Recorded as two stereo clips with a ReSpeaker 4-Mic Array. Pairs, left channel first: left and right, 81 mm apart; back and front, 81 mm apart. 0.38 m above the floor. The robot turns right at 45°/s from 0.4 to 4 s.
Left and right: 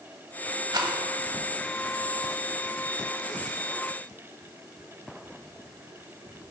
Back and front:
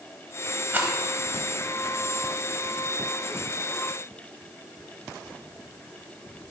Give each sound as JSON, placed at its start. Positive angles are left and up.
{"t": 0.7, "sound": "a rattle", "azimuth_deg": -65, "distance_m": 0.8}